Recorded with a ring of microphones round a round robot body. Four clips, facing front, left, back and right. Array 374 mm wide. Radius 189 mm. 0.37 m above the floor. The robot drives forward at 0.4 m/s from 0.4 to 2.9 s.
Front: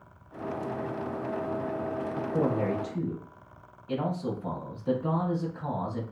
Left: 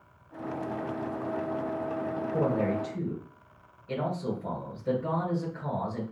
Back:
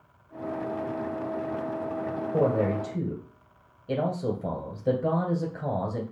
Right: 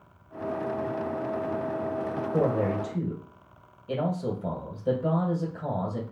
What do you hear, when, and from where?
2.3 s a man speaking: 160° right, 2 m